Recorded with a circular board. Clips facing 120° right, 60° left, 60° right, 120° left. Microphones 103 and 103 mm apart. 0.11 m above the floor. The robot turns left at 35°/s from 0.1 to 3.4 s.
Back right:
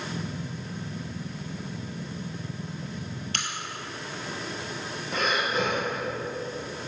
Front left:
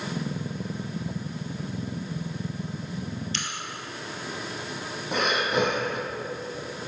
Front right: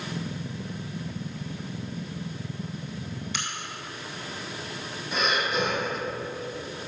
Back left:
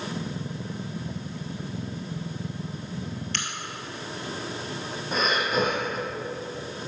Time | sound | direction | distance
3.3 | a crack | 140° right | 1.0 m
5.1 | breathing | 70° left | 1.5 m